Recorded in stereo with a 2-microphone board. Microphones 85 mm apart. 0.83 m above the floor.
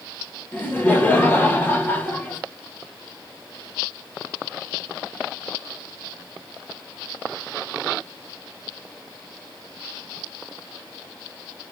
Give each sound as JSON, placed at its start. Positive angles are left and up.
{"t": 0.5, "sound": "laughter", "side_deg": 25, "distance_m": 1.1}